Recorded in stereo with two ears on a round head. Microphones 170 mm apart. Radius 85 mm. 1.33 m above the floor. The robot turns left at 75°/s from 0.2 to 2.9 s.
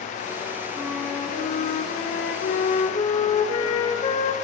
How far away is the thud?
No thud in this recording.